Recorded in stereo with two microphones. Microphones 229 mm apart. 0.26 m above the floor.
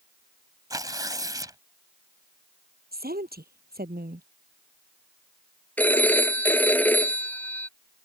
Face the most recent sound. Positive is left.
turn(degrees=5)  # may be behind; listen again after turning